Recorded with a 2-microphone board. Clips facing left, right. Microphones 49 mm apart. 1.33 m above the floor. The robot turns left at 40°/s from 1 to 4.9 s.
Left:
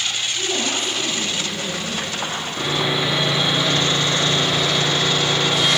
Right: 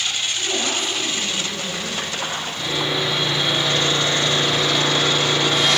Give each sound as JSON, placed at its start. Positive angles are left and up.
{"t": 0.3, "sound": "a woman speaking", "azimuth_deg": 5, "distance_m": 5.0}
{"t": 2.6, "sound": "sawing", "azimuth_deg": 40, "distance_m": 3.0}